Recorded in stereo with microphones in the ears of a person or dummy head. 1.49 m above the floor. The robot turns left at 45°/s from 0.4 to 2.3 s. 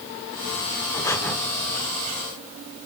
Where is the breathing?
20° left (ahead or behind), 2 m; by 1.4 s 5° left (ahead or behind), 2 m.